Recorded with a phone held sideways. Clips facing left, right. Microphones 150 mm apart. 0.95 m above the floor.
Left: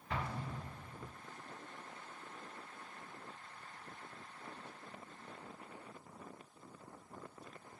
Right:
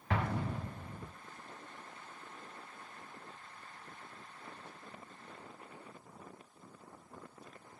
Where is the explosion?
70° right (ahead or behind), 0.8 m.